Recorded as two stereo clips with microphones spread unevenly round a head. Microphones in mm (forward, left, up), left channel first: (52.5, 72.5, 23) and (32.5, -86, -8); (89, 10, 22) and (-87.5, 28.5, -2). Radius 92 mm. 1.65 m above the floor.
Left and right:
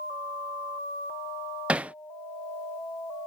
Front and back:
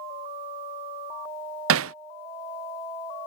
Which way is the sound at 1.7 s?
175° left.